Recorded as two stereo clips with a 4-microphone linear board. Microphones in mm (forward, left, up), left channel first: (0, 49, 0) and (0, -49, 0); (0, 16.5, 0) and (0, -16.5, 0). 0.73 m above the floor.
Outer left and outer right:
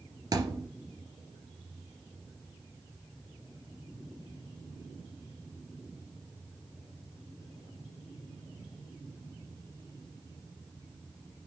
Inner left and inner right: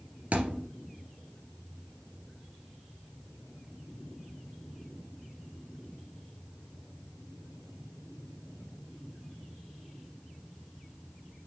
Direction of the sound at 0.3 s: 35° right (ahead or behind).